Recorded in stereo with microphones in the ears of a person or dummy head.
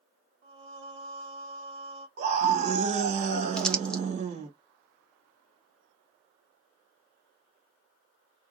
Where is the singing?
75° right (ahead or behind), 0.9 m.